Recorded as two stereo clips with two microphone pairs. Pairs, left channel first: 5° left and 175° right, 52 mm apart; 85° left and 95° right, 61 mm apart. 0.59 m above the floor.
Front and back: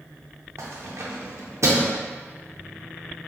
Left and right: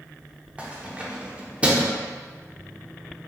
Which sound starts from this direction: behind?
Keys jangling, at 0.6 s.